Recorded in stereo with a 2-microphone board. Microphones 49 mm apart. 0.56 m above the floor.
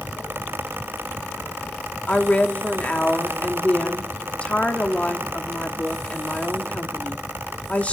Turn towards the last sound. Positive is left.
turn(degrees=30)  # may be behind; listen again after turning